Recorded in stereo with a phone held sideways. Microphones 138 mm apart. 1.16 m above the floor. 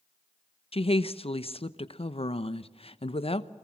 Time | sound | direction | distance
0.7 | a woman speaking | 45° left (ahead or behind) | 0.9 m